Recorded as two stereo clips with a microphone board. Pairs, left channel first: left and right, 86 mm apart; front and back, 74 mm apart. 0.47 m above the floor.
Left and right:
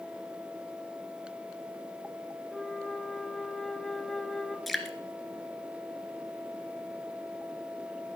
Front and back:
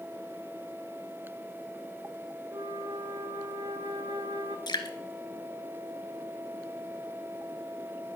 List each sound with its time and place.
2.5 s a flute: 175° left, 1.2 m
4.7 s dripping: straight ahead, 1.7 m